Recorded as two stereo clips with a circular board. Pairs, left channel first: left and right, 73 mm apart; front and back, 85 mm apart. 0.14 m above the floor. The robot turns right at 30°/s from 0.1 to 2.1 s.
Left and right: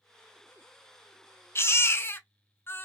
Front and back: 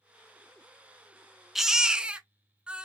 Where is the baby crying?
95° left, 0.6 m; by 2.9 s 115° left, 0.6 m.